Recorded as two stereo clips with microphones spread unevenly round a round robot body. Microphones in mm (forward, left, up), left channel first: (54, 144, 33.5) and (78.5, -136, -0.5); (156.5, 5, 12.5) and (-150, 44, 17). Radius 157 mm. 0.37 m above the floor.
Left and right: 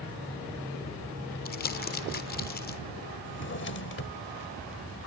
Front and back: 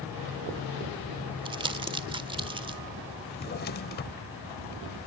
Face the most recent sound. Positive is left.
turn(degrees=50)